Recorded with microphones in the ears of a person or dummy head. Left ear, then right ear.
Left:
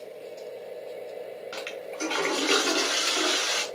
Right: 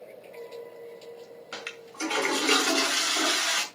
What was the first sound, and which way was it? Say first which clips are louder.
A toilet flushing: left 1 dB; centre (ahead or behind).